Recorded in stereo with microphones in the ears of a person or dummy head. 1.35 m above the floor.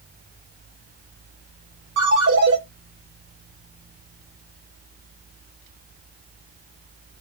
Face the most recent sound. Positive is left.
turn(degrees=-80)